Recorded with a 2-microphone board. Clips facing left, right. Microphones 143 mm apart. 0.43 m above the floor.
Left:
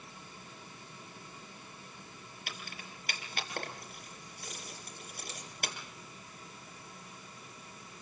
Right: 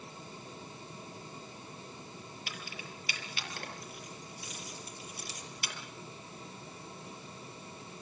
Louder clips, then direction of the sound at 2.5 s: Left 1 dB; 55° left (ahead or behind).